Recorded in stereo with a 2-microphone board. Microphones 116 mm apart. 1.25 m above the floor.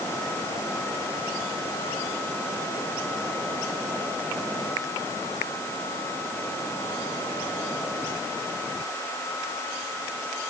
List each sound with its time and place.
Only background noise.